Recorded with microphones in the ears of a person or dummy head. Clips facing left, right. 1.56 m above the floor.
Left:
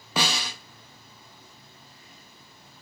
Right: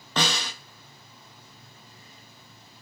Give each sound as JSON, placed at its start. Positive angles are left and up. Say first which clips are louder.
{"t": 0.2, "sound": "a snare drum", "louder": "even", "side_deg": 10, "distance_m": 1.0}